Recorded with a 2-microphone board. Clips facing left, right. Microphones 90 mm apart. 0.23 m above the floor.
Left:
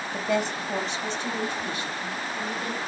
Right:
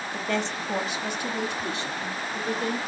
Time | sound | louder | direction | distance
0.1 | a woman speaking | left 3 dB | 20° left (ahead or behind) | 1.0 m